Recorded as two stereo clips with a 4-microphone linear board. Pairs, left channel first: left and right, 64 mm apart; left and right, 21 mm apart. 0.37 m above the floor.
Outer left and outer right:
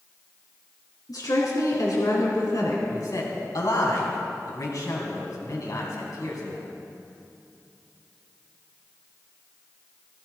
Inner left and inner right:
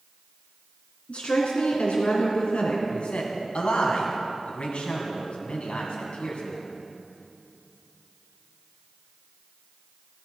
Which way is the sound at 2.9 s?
65° left (ahead or behind).